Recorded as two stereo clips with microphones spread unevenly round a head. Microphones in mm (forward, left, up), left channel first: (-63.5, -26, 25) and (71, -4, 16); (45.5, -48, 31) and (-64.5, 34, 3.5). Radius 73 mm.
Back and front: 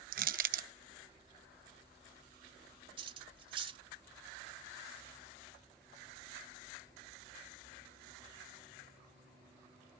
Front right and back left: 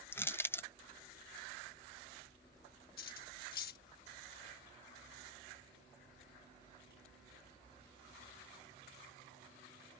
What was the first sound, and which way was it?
Crushing, 25° left.